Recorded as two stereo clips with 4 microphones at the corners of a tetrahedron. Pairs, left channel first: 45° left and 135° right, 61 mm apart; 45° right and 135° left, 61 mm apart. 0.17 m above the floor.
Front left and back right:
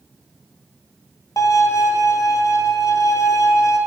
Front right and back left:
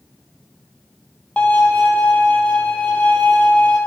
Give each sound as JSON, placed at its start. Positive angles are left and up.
{"t": 1.4, "sound": "a violin", "azimuth_deg": 25, "distance_m": 0.7}